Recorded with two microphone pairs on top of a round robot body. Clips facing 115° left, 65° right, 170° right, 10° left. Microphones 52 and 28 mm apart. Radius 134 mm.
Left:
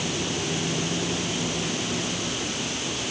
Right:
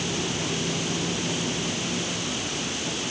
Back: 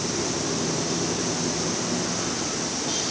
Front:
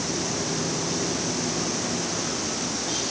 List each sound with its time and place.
Only background noise.